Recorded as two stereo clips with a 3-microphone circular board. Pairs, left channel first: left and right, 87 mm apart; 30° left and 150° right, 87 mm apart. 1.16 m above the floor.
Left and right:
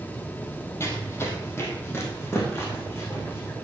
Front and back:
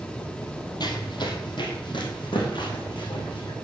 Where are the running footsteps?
35° left, 2 m.